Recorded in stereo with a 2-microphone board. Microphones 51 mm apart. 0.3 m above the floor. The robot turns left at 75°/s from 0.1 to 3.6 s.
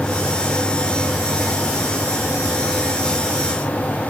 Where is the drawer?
I don't hear a drawer.